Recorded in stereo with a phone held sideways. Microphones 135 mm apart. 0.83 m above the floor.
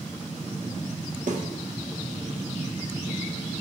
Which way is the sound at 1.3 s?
70° right (ahead or behind).